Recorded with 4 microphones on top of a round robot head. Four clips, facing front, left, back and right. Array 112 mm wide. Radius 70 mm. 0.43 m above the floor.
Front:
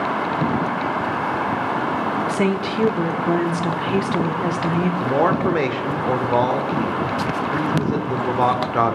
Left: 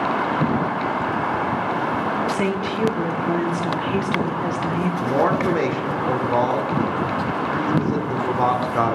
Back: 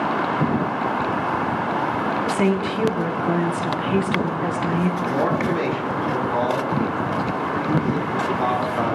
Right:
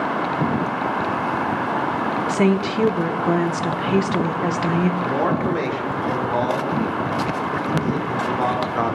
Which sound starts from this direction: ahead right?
A woman speaking, at 2.3 s.